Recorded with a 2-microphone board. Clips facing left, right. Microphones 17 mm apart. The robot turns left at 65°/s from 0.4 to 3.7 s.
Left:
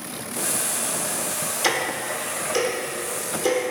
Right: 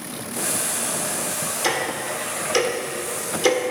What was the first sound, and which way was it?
Ticking, 10° left (ahead or behind).